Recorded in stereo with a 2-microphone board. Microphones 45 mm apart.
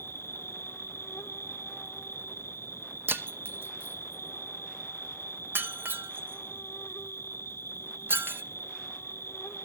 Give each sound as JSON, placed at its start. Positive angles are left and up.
{"t": 0.0, "sound": "an insect", "side_deg": 80, "distance_m": 0.8}
{"t": 3.1, "sound": "breaking glass", "side_deg": -55, "distance_m": 0.8}